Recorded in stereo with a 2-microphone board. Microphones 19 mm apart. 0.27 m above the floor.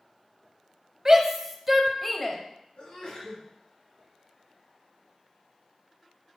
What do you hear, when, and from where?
1.1 s a shout: 25° right (ahead or behind), 1.1 m; by 2.4 s 15° left (ahead or behind), 0.9 m
2.8 s a sneeze: 50° left (ahead or behind), 3.5 m